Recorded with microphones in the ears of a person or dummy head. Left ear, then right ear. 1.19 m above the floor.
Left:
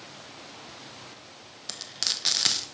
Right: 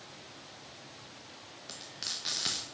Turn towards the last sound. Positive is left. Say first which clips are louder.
# left 9 dB
turn(degrees=25)  # may be behind; listen again after turning